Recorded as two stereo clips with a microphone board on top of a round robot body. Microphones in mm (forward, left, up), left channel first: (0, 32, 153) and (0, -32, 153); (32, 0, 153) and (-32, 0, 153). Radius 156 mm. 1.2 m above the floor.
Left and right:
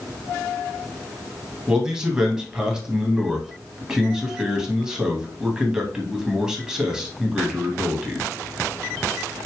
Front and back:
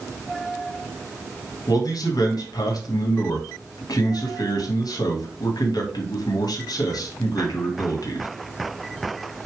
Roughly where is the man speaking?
Ahead.